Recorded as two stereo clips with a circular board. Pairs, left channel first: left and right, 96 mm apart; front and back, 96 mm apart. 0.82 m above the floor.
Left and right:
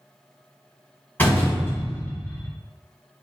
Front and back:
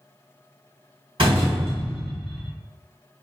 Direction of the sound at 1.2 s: 160° left.